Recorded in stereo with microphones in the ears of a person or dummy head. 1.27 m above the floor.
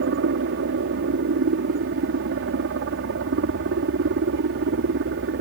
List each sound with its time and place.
0.0 s a helicopter: 65° right (ahead or behind)